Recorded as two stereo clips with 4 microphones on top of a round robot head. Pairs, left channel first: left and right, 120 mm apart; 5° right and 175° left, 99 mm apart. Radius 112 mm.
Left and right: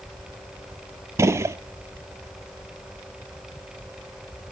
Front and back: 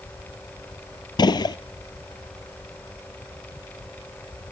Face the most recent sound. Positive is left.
turn(degrees=-30)